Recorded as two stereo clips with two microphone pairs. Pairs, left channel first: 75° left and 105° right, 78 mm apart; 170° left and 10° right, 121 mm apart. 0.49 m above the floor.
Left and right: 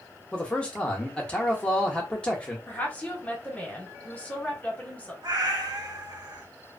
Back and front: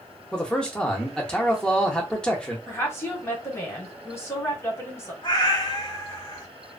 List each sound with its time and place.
0.3 s a man speaking: 110° left, 0.7 m
2.7 s a woman speaking: 125° left, 1.0 m
5.2 s a cat meowing: 135° right, 0.7 m